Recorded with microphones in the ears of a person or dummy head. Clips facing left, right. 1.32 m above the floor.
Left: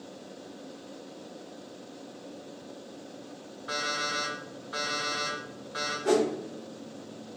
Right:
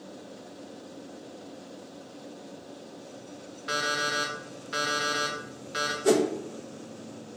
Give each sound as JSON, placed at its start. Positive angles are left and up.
{"t": 3.7, "sound": "an alarm clock", "side_deg": -35, "distance_m": 0.7}
{"t": 6.0, "sound": "a whoosh", "side_deg": -40, "distance_m": 0.8}